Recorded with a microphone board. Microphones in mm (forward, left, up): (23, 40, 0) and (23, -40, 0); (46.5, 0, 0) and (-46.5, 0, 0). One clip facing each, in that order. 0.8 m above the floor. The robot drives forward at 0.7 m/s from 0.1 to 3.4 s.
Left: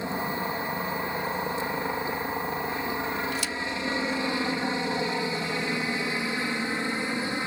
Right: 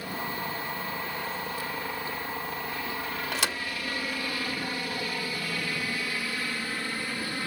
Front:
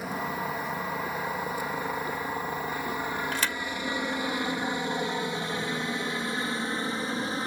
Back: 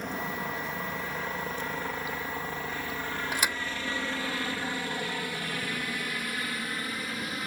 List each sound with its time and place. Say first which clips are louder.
0.0 s a helicopter: left 4 dB, front 2 dB; 80° left; by 7.5 s 35° left
3.3 s a thud: even, even; 100° right; by 3.6 s 105° right